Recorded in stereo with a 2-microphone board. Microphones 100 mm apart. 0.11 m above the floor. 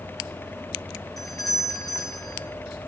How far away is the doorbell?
About 8.5 m.